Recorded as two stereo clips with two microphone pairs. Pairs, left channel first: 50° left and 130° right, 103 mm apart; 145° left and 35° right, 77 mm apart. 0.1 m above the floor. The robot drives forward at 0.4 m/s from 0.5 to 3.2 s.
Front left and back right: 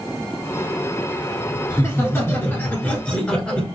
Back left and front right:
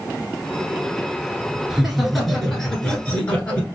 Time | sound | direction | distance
1.7 | laughter | 40° left | 1.3 m